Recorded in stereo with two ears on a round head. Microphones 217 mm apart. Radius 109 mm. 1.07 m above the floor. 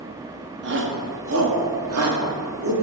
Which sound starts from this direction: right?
A shout, at 0.6 s.